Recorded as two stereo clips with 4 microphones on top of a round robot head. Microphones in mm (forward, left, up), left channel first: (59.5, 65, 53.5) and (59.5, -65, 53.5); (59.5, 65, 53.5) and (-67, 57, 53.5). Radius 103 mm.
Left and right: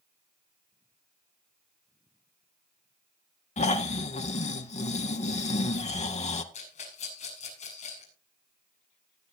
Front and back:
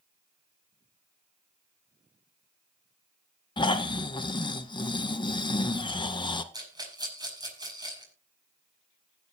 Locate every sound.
3.6 s snoring: 55° left, 1.5 m
6.5 s a rattle: 125° left, 6 m